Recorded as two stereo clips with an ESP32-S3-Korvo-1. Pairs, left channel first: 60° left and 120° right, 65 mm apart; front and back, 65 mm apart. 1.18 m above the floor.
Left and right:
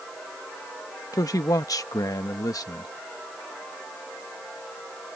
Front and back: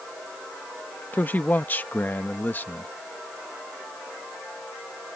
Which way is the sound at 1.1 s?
60° left.